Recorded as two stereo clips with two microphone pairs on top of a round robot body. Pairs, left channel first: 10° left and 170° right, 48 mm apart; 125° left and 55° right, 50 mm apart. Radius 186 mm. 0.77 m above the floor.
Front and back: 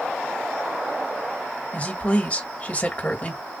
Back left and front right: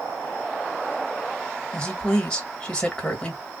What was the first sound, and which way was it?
A woman speaking, 55° left.